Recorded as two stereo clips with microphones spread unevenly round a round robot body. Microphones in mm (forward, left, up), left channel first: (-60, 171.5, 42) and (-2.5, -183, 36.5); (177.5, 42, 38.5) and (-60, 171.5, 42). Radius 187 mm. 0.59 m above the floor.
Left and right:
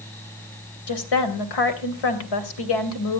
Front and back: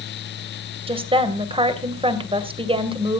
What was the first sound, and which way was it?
A woman speaking, 80° left.